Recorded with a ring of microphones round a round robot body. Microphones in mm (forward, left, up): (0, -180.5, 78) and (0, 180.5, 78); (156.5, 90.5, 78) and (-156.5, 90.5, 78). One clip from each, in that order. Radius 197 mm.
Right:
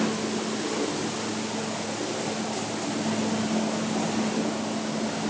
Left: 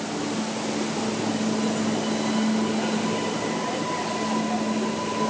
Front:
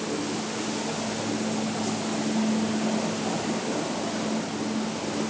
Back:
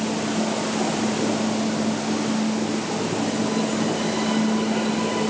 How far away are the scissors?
No scissors in this recording.